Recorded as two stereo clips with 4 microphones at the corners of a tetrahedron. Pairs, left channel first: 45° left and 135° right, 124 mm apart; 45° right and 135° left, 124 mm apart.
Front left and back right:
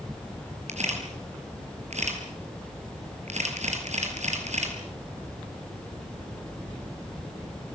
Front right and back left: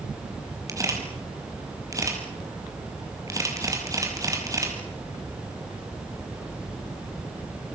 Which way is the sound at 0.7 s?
160° right.